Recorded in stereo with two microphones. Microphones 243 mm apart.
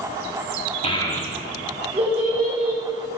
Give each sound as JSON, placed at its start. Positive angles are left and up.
{"t": 0.8, "sound": "a child speaking", "side_deg": 25, "distance_m": 1.1}